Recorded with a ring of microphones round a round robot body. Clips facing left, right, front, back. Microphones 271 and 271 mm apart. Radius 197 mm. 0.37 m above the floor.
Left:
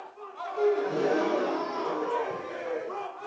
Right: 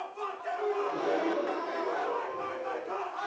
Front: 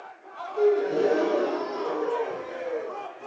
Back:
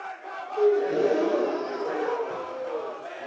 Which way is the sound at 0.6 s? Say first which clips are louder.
Left 7 dB, even; 90° left.